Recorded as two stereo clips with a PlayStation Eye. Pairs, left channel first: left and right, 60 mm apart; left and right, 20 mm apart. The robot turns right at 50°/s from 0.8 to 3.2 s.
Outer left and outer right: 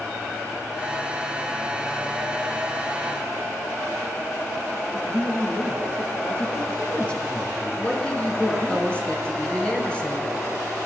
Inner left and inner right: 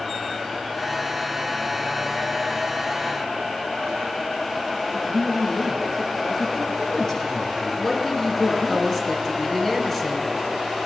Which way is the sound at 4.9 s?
25° left (ahead or behind).